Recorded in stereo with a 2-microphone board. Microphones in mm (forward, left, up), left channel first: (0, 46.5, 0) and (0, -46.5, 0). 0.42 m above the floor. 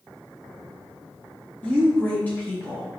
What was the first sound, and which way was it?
A woman speaking, 20° left (ahead or behind).